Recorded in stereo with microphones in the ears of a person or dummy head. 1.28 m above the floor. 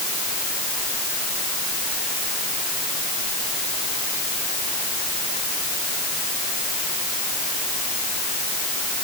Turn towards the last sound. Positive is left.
No sound to turn to.